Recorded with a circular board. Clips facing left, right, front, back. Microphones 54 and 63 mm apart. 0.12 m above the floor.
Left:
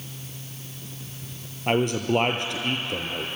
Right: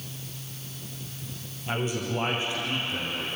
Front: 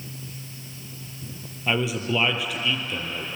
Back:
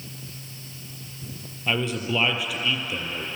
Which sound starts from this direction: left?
A man speaking, at 1.7 s.